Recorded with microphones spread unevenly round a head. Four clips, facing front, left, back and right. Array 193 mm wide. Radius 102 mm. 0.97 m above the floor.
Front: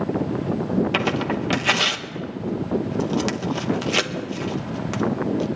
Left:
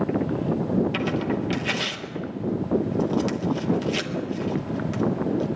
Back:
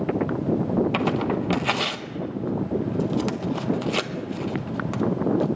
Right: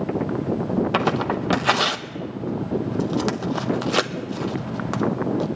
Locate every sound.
0.9 s tearing paper: 80° right, 0.9 m